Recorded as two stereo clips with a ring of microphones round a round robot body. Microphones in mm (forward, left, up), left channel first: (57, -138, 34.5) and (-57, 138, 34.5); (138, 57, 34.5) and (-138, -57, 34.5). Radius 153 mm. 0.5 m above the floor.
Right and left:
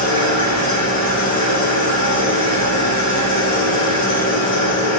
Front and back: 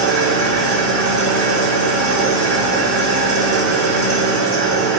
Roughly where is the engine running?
Ahead right.